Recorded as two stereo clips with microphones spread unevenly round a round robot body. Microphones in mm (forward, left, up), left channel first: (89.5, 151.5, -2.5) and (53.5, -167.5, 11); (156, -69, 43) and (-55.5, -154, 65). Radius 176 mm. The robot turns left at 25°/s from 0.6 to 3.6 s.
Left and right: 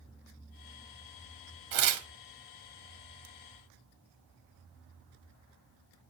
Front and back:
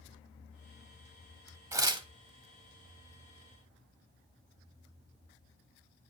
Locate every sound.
1.7 s tearing paper: 85° right, 0.6 m; by 2.1 s 95° right, 0.6 m